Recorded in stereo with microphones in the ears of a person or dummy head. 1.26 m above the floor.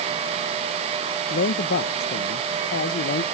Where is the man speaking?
55° left (ahead or behind).